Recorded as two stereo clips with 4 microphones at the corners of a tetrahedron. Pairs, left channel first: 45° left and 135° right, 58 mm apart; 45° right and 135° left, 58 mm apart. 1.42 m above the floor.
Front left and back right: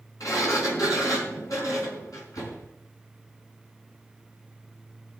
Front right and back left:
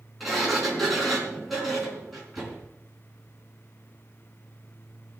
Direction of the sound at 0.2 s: 45° left.